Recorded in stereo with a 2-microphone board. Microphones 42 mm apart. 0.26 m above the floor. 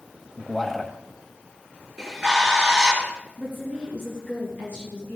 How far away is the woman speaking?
About 5.5 m.